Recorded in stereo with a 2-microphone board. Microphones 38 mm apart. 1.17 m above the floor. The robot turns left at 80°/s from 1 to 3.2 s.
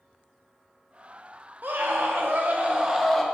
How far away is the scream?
About 0.7 m.